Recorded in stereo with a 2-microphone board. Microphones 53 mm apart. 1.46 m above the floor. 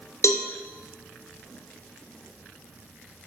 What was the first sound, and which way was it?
A cowbell, 70° left (ahead or behind).